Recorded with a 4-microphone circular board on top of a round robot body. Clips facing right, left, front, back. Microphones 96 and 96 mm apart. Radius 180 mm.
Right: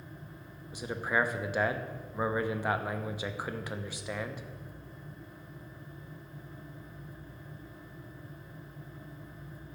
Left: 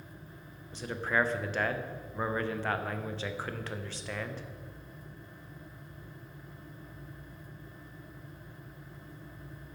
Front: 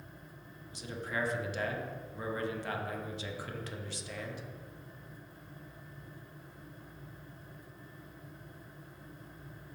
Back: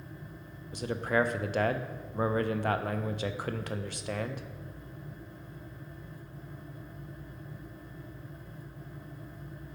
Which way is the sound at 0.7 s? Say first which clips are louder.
Even, back 9 dB; 165° right.